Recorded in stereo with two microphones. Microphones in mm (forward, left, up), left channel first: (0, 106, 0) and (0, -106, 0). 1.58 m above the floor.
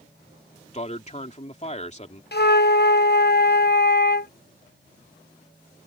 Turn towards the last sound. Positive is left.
turn(degrees=50)  # may be behind; listen again after turning